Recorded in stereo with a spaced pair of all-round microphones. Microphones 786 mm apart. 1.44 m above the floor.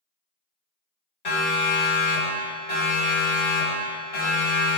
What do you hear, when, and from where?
1.2 s a siren: 80° left, 6.5 m; by 4.8 s 50° left (ahead or behind), 8.5 m